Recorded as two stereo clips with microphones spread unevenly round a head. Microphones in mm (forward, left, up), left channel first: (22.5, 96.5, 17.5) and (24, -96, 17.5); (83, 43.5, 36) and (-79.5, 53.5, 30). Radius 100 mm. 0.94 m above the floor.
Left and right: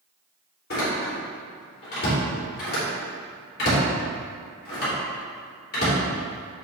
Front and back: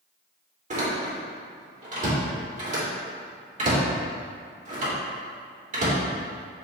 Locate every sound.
0.7 s a door slam: 135° left, 2.5 m